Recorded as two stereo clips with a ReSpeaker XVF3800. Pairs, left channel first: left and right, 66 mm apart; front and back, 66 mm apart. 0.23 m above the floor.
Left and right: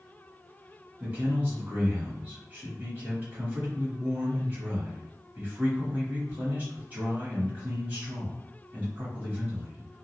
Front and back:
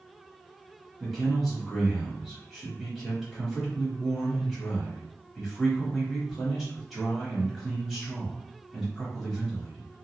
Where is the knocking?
I don't hear knocking.